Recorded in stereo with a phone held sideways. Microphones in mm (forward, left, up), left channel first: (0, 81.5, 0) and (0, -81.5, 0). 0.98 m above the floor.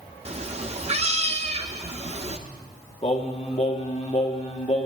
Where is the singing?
40° left (ahead or behind), 0.9 m.